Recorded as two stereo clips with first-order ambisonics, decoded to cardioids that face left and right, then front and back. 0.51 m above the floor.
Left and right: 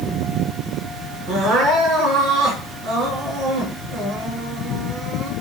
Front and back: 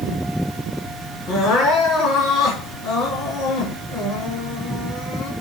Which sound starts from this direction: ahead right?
Crying, at 1.3 s.